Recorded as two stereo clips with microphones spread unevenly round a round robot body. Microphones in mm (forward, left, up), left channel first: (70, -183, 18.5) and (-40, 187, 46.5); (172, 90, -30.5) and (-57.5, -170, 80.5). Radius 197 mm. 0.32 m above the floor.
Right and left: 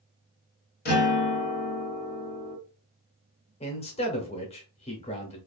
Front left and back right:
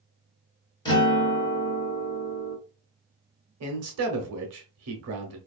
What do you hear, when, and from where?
0.8 s a guitar: 15° right, 1.2 m
3.6 s a man speaking: 110° right, 0.9 m